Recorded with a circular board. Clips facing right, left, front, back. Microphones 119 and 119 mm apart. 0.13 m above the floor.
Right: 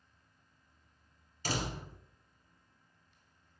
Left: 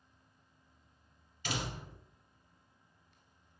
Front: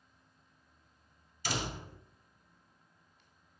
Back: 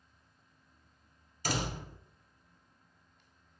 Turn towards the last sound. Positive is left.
turn(degrees=-140)